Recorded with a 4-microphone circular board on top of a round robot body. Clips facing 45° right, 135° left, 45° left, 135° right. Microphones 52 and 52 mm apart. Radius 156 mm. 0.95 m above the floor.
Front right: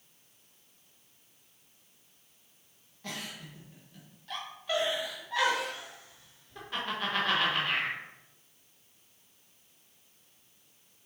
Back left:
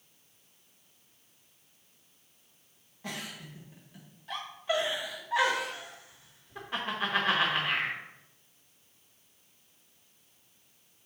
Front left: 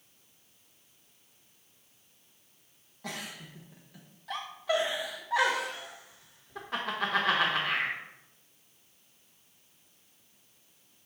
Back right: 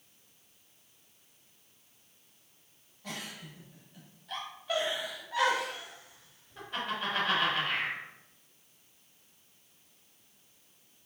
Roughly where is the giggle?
Ahead left.